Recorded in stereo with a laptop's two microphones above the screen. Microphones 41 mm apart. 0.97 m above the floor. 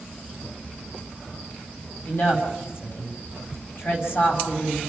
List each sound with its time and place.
2.0 s a woman speaking: 60° left (ahead or behind), 5.5 m